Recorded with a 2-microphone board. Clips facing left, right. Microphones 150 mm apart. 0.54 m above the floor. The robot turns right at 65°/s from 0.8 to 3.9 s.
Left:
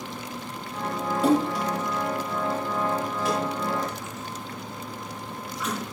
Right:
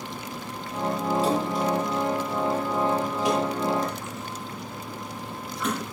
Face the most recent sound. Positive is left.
turn(degrees=-55)  # may be behind; listen again after turning